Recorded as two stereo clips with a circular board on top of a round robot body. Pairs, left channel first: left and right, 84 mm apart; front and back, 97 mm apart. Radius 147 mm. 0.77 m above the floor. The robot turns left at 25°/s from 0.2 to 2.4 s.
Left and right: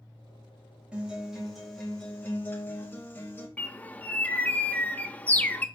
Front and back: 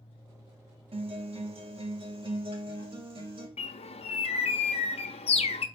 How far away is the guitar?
About 3 m.